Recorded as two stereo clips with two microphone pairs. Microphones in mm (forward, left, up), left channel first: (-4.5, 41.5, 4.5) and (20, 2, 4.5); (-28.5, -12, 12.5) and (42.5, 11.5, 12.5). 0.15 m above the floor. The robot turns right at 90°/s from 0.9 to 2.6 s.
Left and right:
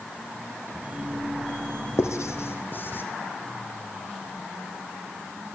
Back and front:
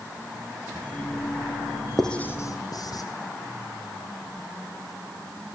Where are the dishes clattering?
I don't hear dishes clattering.